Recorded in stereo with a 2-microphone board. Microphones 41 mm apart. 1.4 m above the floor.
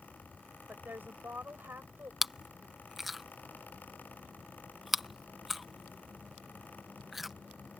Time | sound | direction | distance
0.7 | a woman speaking | 55° right (ahead or behind) | ?
2.2 | chewing | 5° right (ahead or behind) | ?